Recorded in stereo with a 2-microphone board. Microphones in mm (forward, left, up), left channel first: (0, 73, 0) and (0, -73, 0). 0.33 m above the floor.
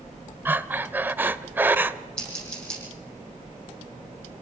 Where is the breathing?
15° right (ahead or behind), 0.6 m.